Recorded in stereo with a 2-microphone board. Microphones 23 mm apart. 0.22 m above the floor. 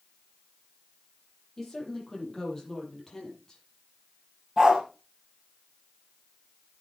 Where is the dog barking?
15° right (ahead or behind), 3.5 m.